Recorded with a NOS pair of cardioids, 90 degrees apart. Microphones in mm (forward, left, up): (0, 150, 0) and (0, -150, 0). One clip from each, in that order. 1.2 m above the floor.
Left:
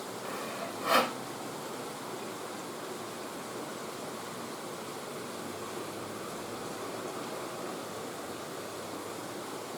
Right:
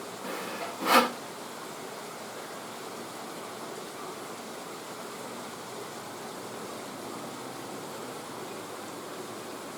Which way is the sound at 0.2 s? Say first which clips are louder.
Right 3 dB; 45° right.